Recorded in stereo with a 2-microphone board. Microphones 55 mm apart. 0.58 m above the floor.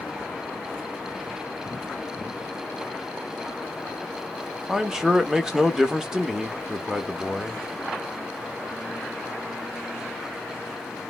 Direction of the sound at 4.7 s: 10° right (ahead or behind).